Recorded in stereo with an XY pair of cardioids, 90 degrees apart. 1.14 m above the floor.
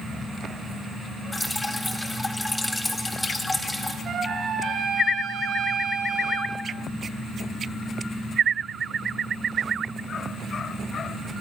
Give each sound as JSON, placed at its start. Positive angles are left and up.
{"t": 1.3, "sound": "dripping", "azimuth_deg": 15, "distance_m": 3.5}
{"t": 4.0, "sound": "a trumpet", "azimuth_deg": -65, "distance_m": 5.5}